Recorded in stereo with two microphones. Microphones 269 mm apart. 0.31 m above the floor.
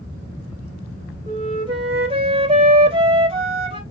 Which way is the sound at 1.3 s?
20° right (ahead or behind).